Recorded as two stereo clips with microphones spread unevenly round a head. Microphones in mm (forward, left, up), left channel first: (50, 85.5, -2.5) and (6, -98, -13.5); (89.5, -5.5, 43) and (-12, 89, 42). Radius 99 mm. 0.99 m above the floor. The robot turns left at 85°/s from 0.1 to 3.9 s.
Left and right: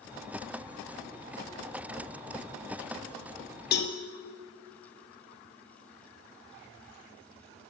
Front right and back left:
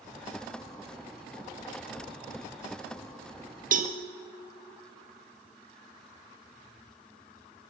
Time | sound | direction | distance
3.7 | a cowbell | 120° left | 1.8 m